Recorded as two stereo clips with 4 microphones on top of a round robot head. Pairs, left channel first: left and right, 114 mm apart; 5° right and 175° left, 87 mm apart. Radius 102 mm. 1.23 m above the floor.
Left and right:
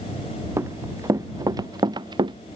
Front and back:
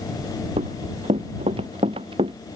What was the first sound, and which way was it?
Running footsteps, 155° right.